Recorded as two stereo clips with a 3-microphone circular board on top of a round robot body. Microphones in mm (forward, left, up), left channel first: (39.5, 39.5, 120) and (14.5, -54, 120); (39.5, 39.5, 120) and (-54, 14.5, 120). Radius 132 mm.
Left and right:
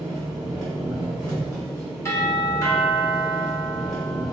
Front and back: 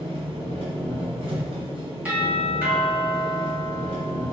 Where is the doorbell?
120° left, 2.0 m.